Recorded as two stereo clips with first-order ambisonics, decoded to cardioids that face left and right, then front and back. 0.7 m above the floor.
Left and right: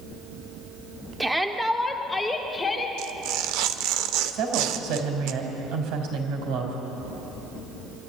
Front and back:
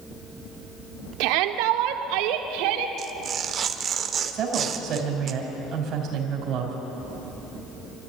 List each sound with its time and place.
1.2 s a shout: 175° right, 1.4 m; by 2.9 s 165° left, 2 m
3.0 s tearing paper: 120° right, 1.0 m
4.3 s a woman speaking: 125° right, 3.5 m